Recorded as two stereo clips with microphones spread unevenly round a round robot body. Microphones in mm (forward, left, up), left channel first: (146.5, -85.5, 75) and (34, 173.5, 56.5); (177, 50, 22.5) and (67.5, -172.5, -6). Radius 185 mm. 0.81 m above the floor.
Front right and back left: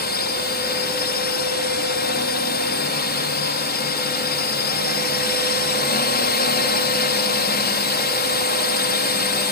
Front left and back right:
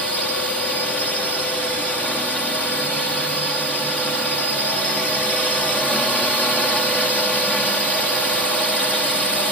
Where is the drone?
25° right.